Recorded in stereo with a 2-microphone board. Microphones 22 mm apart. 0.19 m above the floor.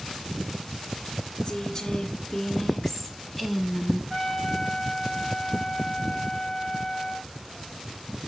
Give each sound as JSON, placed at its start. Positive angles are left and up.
{"t": 1.4, "sound": "a woman speaking", "side_deg": 45, "distance_m": 1.5}
{"t": 4.1, "sound": "a trumpet", "side_deg": -5, "distance_m": 1.4}